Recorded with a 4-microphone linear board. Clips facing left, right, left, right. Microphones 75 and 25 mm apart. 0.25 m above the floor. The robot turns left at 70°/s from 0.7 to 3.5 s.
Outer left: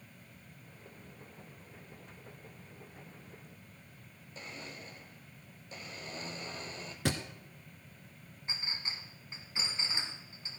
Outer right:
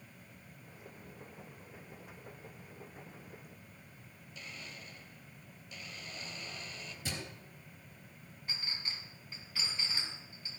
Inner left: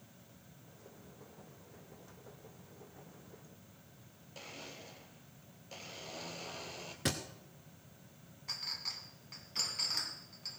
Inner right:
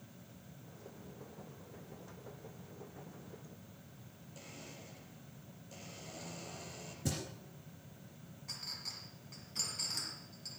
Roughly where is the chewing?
No chewing in this recording.